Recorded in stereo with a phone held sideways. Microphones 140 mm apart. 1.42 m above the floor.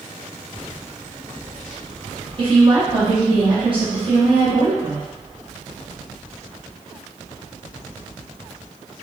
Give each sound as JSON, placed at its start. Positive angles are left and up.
{"t": 2.4, "sound": "a woman speaking", "side_deg": -40, "distance_m": 1.3}